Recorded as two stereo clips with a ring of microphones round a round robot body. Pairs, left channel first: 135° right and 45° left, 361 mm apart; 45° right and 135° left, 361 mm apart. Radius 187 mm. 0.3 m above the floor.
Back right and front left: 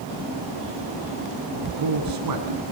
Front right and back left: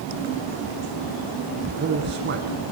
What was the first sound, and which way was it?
A man speaking, 75° left.